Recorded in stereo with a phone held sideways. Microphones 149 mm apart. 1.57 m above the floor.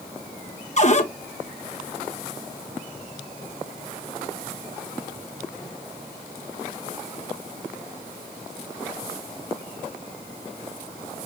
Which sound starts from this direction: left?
A cupboard door, at 0.8 s.